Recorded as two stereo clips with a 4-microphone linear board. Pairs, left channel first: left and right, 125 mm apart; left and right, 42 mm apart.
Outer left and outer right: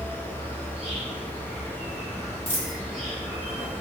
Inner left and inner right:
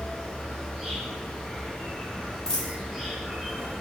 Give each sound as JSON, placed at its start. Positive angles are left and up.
{"t": 0.0, "sound": "an insect", "side_deg": -5, "distance_m": 1.3}
{"t": 2.5, "sound": "a dropped coin", "side_deg": 20, "distance_m": 0.7}